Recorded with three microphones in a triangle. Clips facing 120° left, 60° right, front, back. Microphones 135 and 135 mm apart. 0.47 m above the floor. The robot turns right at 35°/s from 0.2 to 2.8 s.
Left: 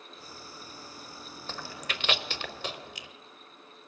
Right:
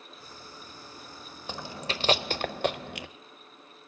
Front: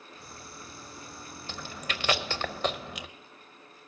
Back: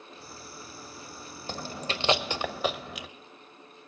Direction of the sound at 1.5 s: 135° right.